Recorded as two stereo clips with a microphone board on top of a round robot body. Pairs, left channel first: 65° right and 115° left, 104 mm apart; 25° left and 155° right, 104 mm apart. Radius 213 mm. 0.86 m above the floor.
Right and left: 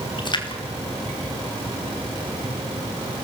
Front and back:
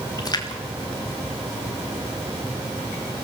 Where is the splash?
25° right, 2.5 m.